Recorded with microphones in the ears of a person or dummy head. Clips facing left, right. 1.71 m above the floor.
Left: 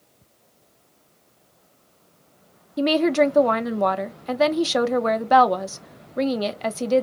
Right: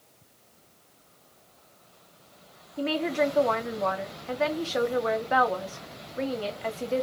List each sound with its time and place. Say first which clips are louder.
2.8 s a woman speaking: left 8 dB; 60° left (ahead or behind), 0.5 m